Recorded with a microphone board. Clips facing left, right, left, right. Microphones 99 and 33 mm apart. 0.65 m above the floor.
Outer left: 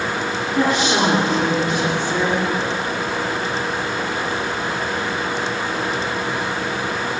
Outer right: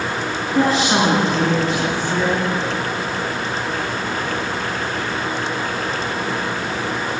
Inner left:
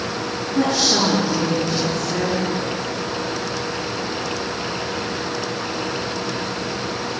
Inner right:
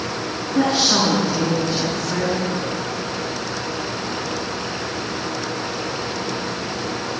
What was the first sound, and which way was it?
A woman speaking, 35° right (ahead or behind).